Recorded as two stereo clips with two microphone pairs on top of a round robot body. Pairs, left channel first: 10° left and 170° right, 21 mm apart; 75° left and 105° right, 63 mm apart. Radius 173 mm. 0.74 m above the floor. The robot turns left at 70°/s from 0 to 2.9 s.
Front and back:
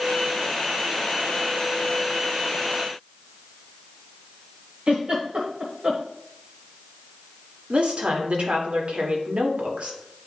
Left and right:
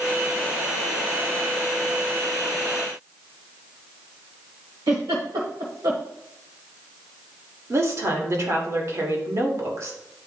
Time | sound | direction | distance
4.9 | a giggle | 120° right | 0.9 m
7.7 | a woman speaking | 145° right | 1.7 m